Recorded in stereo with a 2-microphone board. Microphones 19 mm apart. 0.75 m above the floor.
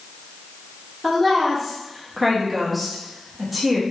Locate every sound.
1.0 s a woman speaking: 5° left (ahead or behind), 0.9 m